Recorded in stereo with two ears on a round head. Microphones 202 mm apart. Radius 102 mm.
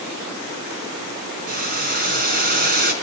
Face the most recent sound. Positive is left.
turn(degrees=-40)  # may be behind; listen again after turning